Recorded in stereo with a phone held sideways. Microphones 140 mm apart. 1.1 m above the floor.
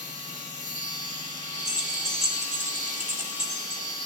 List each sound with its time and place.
0.0 s a machine running: 65° right (ahead or behind), 1.7 m
1.6 s keys jangling: 20° right (ahead or behind), 1.9 m